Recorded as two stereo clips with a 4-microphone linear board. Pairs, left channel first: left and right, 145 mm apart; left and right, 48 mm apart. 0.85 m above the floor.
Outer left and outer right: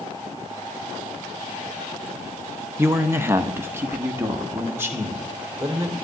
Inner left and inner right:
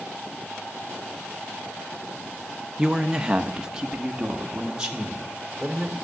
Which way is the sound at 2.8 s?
15° right (ahead or behind).